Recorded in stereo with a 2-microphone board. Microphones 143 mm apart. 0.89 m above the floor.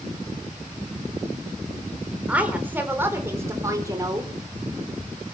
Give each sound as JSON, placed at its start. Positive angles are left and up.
{"t": 2.3, "sound": "a woman speaking", "side_deg": -10, "distance_m": 3.5}